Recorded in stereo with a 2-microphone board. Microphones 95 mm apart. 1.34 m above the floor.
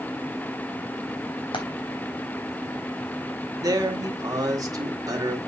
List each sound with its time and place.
1.5 s frying: 60° left (ahead or behind), 3.5 m
3.6 s a man speaking: 40° right (ahead or behind), 2 m